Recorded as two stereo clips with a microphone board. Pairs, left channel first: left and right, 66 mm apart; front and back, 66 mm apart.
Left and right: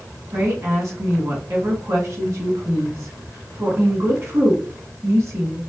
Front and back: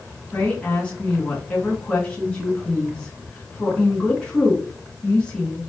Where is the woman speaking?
70° right, 1.8 m.